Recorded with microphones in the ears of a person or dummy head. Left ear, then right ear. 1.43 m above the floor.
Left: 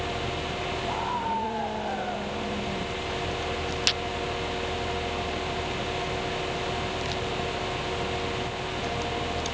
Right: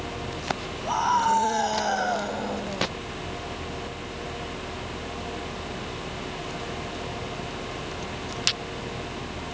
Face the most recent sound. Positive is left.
turn(degrees=-75)  # may be behind; listen again after turning